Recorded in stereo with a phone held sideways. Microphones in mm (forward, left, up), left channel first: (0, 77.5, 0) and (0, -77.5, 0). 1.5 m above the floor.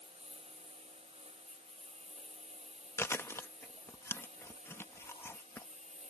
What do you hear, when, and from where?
0.0 s a lawn mower: 40° right (ahead or behind); by 6.1 s 45° right (ahead or behind)
3.0 s chewing: 15° left (ahead or behind)